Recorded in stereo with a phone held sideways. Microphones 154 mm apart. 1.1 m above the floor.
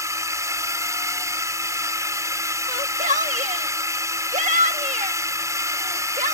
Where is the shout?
55° right (ahead or behind).